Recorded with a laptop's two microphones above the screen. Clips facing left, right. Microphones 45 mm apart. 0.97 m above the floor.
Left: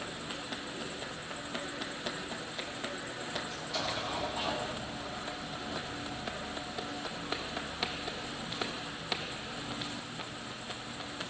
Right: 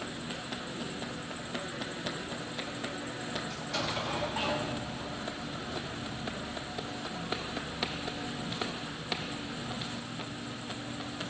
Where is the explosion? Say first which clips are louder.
Right 2 dB; 60° right (ahead or behind), 1.4 m.